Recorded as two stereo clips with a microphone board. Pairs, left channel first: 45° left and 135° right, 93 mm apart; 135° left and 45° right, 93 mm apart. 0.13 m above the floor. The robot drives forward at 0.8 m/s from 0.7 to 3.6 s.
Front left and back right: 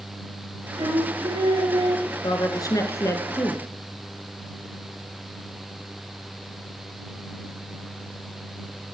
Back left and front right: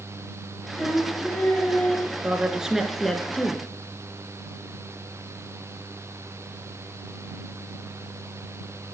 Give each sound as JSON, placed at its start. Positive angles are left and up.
{"t": 0.8, "sound": "singing", "azimuth_deg": -140, "distance_m": 2.5}
{"t": 2.2, "sound": "a woman speaking", "azimuth_deg": 30, "distance_m": 1.7}